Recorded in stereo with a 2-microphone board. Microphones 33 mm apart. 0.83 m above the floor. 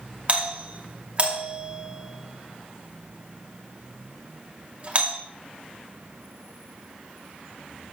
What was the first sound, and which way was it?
A doorbell, 35° right (ahead or behind).